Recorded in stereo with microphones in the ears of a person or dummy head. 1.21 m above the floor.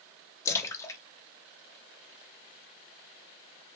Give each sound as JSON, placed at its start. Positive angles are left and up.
{"t": 0.5, "sound": "a splash", "side_deg": 15, "distance_m": 0.5}